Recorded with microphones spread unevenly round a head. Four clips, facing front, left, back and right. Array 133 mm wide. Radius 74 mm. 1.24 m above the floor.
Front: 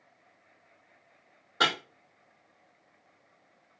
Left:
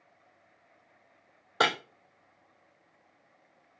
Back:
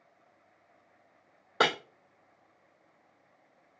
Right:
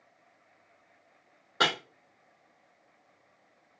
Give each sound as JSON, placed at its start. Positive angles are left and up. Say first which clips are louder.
{"t": 1.6, "sound": "breaking glass", "louder": "left 2 dB, back 2 dB", "azimuth_deg": 175, "distance_m": 1.2}